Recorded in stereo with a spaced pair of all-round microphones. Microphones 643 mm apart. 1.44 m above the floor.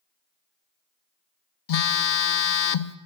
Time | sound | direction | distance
1.7 | a phone buzzing | 75° left (ahead or behind) | 0.6 m